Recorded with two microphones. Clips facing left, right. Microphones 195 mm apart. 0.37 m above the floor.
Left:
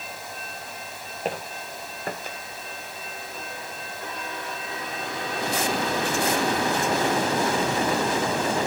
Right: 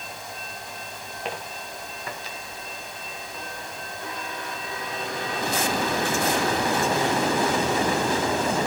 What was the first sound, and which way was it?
Footsteps, 40° left (ahead or behind).